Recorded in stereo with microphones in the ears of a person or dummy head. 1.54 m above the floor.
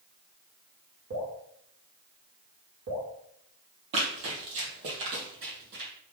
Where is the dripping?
55° right (ahead or behind), 2 m.